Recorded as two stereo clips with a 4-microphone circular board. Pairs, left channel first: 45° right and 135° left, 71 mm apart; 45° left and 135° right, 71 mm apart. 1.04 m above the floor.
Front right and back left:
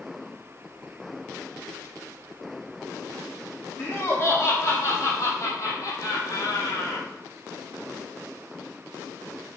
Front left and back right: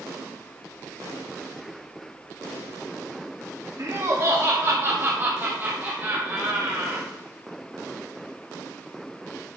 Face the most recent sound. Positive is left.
turn(degrees=-65)